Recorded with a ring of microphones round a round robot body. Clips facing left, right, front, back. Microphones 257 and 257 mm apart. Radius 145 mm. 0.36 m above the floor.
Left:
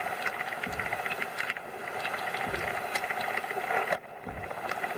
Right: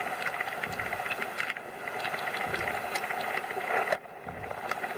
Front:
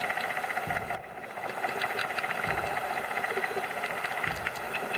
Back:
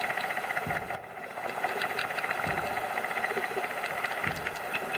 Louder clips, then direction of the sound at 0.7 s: Left 1 dB, even; 175° left.